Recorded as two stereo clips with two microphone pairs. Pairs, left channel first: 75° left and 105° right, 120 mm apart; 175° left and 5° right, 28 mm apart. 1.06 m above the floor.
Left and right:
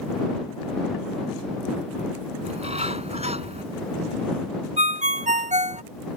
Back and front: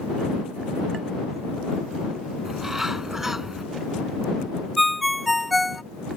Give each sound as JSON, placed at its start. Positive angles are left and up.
{"t": 2.5, "sound": "a bird", "azimuth_deg": -80}
{"t": 4.8, "sound": "a ringtone", "azimuth_deg": -95}